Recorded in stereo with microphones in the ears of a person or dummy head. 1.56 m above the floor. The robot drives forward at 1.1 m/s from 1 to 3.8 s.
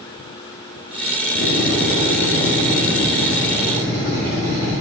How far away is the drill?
About 0.9 m.